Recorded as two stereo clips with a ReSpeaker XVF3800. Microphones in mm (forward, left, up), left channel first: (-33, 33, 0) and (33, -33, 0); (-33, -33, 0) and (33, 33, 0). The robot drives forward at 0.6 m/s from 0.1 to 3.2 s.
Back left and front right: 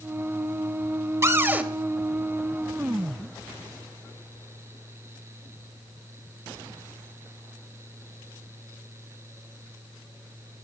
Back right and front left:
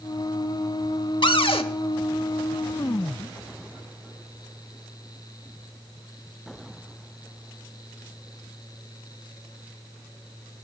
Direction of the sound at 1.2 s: 105° right.